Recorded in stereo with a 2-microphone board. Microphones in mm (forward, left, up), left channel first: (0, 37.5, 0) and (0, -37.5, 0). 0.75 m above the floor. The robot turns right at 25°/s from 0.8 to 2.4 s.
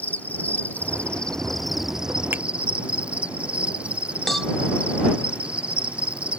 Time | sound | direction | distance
0.0 | an insect | 160° left | ?
2.3 | a finger snap | 30° right (ahead or behind) | ?
4.3 | a cowbell | 5° left (ahead or behind) | ?